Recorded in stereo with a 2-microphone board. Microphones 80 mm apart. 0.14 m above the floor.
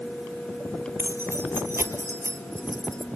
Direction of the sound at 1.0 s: 25° right (ahead or behind).